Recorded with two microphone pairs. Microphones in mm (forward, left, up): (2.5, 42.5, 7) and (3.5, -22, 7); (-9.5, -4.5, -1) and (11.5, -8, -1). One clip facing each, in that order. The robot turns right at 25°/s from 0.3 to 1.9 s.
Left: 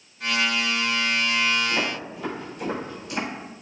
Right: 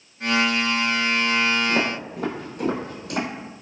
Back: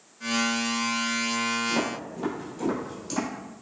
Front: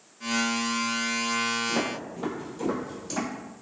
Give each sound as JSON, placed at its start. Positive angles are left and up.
{"t": 1.7, "sound": "footsteps", "azimuth_deg": -95, "distance_m": 1.2}